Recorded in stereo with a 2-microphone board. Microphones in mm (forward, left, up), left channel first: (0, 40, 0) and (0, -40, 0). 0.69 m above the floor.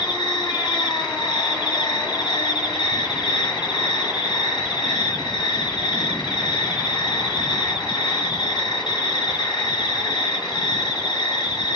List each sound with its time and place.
0.0 s an insect: 70° left (ahead or behind), 4.5 m